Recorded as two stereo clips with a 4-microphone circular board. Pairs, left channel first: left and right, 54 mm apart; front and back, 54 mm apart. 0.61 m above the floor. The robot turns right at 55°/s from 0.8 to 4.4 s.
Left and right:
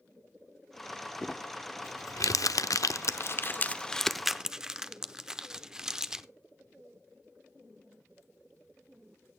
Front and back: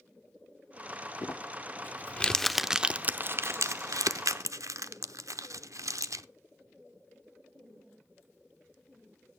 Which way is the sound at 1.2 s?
15° left.